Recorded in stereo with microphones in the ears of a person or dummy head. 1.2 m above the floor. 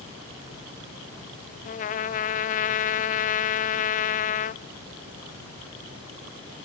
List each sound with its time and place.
1.6 s a trumpet: 40° left (ahead or behind), 1.0 m